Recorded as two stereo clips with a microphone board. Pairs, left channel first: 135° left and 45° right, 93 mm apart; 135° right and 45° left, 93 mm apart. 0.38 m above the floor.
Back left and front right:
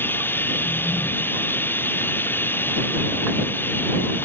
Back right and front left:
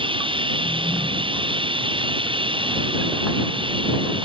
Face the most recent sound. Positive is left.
turn(degrees=65)